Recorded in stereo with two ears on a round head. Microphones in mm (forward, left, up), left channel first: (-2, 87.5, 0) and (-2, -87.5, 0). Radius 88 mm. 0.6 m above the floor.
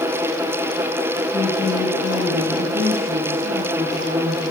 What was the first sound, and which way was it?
A woman speaking, 65° right (ahead or behind).